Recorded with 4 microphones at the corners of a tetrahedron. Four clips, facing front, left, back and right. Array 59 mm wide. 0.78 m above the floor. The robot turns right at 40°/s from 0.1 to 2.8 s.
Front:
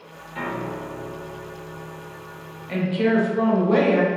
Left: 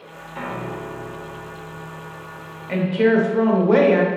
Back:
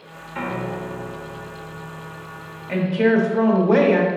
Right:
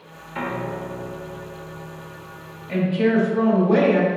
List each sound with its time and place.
0.3 s a piano: 120° right, 0.8 m; by 2.6 s 35° right, 0.8 m
2.7 s a woman speaking: 120° left, 0.9 m; by 4.1 s 125° left, 0.9 m